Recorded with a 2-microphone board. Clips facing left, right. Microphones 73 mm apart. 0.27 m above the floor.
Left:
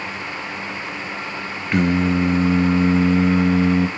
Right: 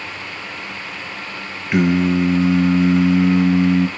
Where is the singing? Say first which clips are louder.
Right 2 dB; 10° right (ahead or behind), 1.2 m.